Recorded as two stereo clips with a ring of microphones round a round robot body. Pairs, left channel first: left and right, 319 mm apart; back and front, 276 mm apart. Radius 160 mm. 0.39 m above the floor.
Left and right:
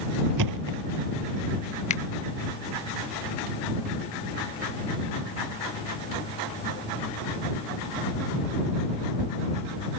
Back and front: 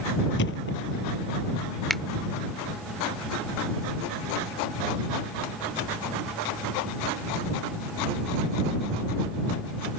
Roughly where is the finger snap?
Left.